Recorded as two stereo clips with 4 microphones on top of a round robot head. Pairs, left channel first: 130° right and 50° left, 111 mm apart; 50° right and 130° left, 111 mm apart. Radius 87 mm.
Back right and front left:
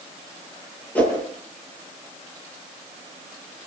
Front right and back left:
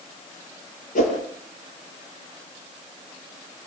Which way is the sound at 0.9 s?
50° right.